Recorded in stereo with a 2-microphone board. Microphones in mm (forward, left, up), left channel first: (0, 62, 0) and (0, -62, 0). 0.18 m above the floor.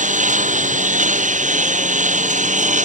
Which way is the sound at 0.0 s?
90° right.